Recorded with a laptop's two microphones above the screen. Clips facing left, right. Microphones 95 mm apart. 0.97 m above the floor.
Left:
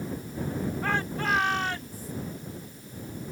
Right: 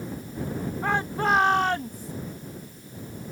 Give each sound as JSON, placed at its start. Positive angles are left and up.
{"t": 0.8, "sound": "a shout", "side_deg": -20}